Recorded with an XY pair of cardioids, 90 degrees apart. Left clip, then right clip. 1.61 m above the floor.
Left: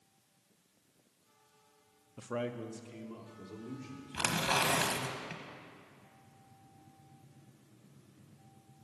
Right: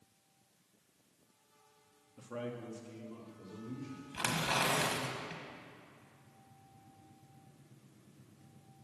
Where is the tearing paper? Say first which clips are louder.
Left 2 dB; 35° left, 1.3 m.